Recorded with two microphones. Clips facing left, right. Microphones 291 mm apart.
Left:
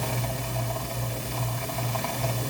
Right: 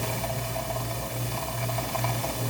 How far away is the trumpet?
No trumpet in this recording.